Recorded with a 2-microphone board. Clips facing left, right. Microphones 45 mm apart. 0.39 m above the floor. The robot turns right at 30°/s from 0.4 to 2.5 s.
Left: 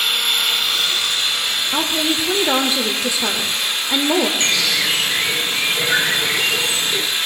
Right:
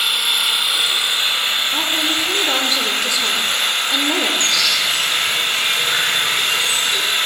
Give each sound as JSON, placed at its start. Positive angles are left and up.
{"t": 0.0, "sound": "an engine running", "azimuth_deg": -170, "distance_m": 1.3}
{"t": 1.7, "sound": "a woman speaking", "side_deg": 25, "distance_m": 0.8}
{"t": 4.4, "sound": "a bird", "side_deg": 40, "distance_m": 1.5}